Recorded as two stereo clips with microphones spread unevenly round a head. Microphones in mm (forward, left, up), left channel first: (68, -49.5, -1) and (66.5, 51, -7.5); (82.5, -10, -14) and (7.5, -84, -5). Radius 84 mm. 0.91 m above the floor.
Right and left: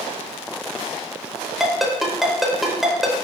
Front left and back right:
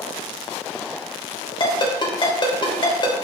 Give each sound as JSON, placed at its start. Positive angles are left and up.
{"t": 1.6, "sound": "a ringtone", "azimuth_deg": 0, "distance_m": 1.1}